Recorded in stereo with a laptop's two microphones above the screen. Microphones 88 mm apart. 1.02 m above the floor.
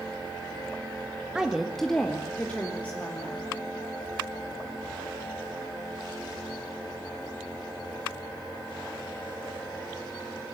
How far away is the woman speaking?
About 1.5 m.